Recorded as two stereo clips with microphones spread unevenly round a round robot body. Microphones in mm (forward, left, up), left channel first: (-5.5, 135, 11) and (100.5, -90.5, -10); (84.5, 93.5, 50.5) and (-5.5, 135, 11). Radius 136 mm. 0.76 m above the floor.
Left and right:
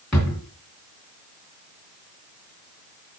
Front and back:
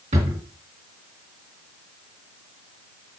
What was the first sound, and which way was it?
A drawer, 160° right.